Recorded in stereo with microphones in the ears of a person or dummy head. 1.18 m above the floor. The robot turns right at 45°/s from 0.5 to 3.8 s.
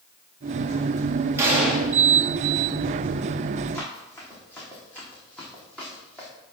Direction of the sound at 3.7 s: 20° left (ahead or behind).